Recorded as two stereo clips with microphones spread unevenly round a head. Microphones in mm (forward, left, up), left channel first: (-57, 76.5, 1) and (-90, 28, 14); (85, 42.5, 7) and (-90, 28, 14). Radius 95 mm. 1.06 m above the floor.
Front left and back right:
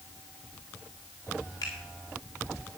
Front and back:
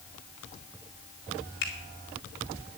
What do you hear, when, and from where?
1.6 s a finger snap: 20° left, 4 m